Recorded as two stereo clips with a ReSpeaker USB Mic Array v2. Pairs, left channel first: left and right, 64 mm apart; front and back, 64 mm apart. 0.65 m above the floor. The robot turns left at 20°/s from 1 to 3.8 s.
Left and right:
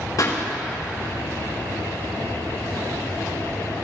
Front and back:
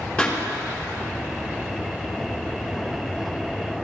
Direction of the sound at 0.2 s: 70° left.